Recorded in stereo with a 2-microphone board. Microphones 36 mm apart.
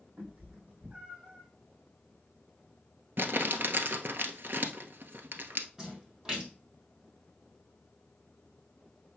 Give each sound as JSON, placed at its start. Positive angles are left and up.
{"t": 0.2, "sound": "a cat meowing", "side_deg": -45, "distance_m": 2.5}
{"t": 3.2, "sound": "crumpling", "side_deg": -70, "distance_m": 1.2}
{"t": 5.8, "sound": "a splash", "side_deg": -20, "distance_m": 3.0}